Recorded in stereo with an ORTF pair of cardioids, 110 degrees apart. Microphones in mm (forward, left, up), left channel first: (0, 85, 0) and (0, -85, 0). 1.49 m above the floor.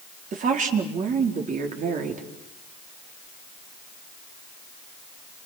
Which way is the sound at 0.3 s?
50° right.